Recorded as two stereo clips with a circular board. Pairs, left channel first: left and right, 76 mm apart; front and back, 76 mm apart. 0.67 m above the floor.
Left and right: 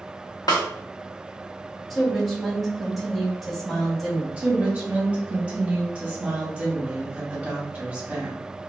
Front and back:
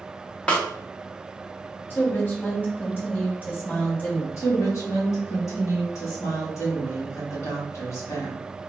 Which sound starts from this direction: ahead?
A woman speaking, at 1.9 s.